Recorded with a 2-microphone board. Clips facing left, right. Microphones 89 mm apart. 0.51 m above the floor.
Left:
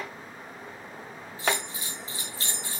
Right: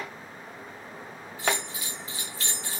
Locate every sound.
1.4 s a bell: 35° left (ahead or behind), 6.5 m